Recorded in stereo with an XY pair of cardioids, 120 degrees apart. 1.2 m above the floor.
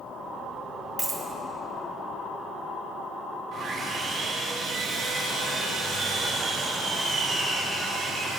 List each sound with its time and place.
1.0 s a dropped coin: 10° right, 3 m
3.5 s sawing: 50° right, 5.5 m